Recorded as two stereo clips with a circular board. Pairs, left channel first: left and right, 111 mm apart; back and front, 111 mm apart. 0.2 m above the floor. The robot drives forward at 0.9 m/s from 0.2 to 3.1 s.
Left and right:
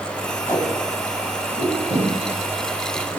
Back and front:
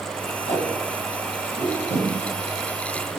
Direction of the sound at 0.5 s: 155° left.